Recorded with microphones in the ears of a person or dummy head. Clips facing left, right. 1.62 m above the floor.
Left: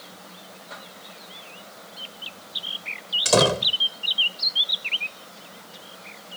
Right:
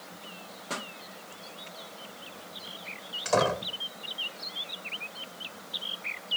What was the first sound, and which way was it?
A pop, 65° right (ahead or behind).